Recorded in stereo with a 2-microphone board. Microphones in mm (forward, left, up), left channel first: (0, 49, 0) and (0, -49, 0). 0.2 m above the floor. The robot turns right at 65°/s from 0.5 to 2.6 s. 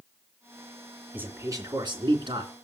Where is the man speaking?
160° right, 3 m; by 2.5 s 70° right, 3 m.